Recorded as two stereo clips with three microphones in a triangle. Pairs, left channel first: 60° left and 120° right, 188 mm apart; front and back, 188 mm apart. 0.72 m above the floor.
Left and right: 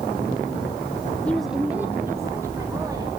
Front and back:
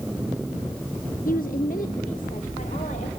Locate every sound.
1.2 s a woman speaking: 20° right, 0.7 m; by 3.1 s 50° right, 3 m